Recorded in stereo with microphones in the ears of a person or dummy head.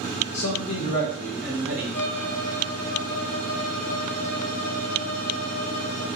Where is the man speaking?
55° left (ahead or behind), 0.8 m; by 1.8 s 10° right (ahead or behind), 1.2 m.